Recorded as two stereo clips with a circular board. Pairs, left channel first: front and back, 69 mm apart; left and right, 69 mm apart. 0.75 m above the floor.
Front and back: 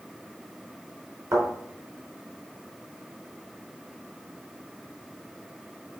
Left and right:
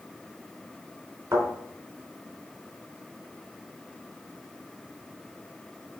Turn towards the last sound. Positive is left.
turn(degrees=-140)